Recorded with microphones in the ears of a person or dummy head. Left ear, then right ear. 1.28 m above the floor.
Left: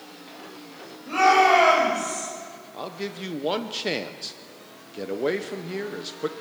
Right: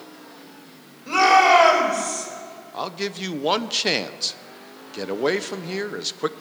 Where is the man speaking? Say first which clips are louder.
Right 5 dB; 20° right (ahead or behind), 0.5 m.